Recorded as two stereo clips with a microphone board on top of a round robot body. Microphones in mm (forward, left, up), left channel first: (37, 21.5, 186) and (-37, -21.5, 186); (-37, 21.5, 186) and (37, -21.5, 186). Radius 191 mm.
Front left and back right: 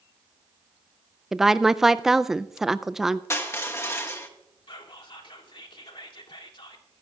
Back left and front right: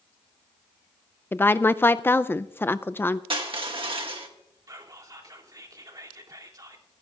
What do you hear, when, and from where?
1.3 s a woman speaking: 130° left, 0.6 m
3.3 s crushing: 30° right, 1.6 m
4.7 s whispering: 15° left, 2.5 m